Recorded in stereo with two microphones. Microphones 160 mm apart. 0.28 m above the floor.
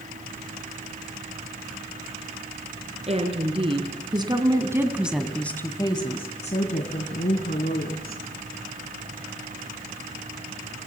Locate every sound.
3.1 s a woman speaking: 40° right (ahead or behind), 3.5 m; by 8.2 s 75° left (ahead or behind), 3.5 m